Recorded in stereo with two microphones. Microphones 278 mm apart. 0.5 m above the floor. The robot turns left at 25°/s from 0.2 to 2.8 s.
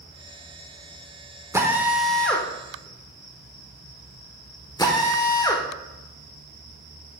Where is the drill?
10° right (ahead or behind), 1.0 m; by 5.7 s 15° left (ahead or behind), 1.0 m.